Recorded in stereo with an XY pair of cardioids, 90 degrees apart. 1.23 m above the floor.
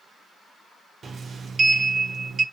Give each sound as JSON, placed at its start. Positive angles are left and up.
{"t": 1.0, "sound": "a sliding door", "azimuth_deg": -55, "distance_m": 0.5}